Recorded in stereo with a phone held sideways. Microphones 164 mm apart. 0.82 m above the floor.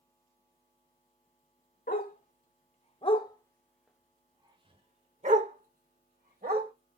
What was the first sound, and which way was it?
A dog barking, 60° left (ahead or behind).